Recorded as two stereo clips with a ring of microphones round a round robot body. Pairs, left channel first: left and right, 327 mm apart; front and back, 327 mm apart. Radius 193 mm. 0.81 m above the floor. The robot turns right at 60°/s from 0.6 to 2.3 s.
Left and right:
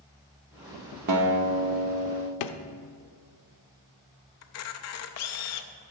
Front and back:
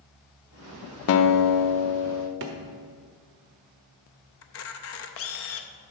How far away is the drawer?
About 0.6 m.